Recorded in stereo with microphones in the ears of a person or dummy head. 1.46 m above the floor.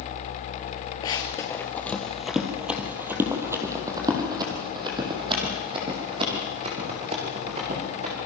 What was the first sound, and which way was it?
Running footsteps, 20° left (ahead or behind).